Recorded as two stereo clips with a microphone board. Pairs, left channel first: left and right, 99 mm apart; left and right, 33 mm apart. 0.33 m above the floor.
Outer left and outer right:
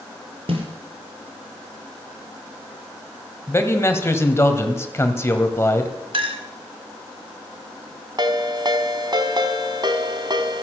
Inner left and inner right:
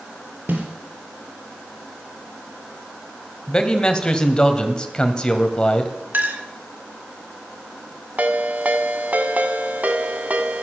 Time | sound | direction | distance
0.5 | a snare drum | 75° right (ahead or behind) | 4 m
3.5 | a man speaking | 25° left (ahead or behind) | 2.0 m
6.1 | a clink | 65° right (ahead or behind) | 2 m
8.2 | a ringtone | 50° right (ahead or behind) | 1.6 m